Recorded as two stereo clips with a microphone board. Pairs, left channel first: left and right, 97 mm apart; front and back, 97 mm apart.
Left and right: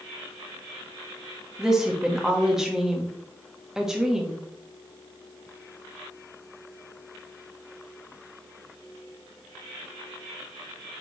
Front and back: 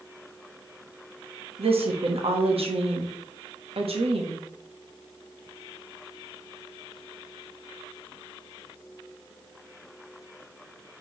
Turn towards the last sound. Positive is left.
turn(degrees=-175)